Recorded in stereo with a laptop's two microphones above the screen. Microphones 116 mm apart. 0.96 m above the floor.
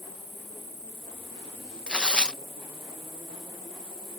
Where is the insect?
50° left (ahead or behind).